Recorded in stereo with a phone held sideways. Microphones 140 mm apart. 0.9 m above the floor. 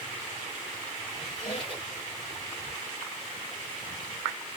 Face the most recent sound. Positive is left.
turn(degrees=40)  # may be behind; listen again after turning